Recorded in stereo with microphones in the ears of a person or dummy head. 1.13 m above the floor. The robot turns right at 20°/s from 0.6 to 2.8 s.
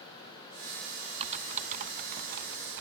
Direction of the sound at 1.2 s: 35° right (ahead or behind).